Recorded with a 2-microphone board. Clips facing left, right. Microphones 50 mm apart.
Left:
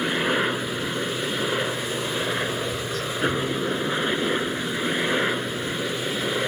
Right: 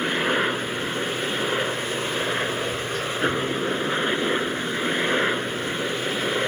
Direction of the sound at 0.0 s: 5° right (ahead or behind).